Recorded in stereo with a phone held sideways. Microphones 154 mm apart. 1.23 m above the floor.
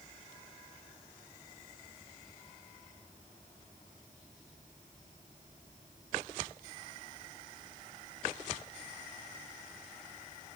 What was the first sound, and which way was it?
Only background noise.